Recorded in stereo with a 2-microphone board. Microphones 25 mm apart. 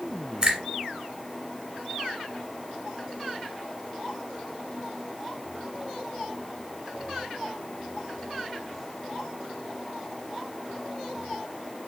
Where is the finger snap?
30° right (ahead or behind), 1.8 m.